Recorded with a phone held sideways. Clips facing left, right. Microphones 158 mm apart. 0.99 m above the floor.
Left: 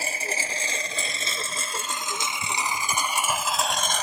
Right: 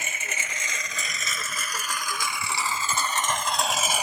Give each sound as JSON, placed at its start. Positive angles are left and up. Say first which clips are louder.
{"t": 0.0, "sound": "a lawn mower", "louder": "left 5 dB", "side_deg": 35}